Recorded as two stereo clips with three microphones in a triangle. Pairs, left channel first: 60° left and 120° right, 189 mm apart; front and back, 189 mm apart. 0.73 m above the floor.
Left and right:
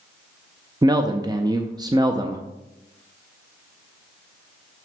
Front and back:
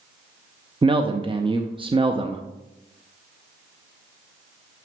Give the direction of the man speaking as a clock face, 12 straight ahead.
5 o'clock.